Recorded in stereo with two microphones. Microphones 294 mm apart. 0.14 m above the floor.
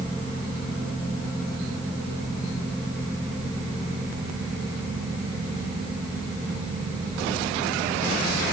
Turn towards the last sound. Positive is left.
No sound to turn to.